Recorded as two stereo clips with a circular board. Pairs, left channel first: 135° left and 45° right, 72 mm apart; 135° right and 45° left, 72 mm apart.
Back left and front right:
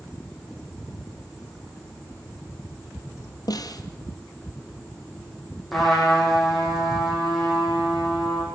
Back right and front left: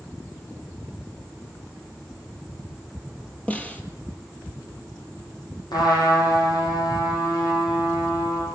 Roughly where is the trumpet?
Behind right.